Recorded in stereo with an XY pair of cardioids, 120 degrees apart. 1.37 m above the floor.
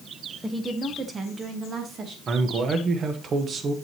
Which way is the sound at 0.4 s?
10° right.